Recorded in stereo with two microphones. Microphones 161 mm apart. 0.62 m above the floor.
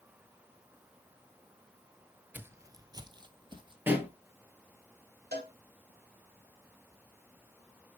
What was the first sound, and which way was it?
Footsteps, 10° right (ahead or behind).